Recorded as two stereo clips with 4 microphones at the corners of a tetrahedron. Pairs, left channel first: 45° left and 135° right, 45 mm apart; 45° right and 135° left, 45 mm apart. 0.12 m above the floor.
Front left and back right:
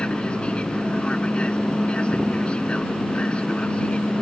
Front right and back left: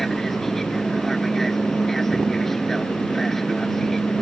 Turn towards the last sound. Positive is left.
turn(degrees=30)